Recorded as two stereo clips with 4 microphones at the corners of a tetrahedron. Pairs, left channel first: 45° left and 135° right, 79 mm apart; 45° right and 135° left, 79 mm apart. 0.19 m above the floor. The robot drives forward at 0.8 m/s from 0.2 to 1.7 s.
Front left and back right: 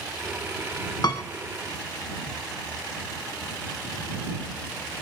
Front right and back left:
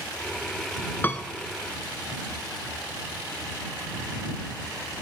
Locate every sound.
1.0 s a piano: 20° left, 0.7 m; by 1.2 s 25° left, 0.6 m